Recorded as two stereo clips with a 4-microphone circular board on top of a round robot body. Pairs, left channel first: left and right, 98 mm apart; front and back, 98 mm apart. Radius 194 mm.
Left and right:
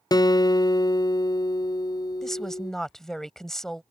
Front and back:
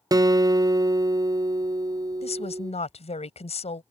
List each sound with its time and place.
0.1 s a guitar: 135° left
2.2 s a woman speaking: 5° left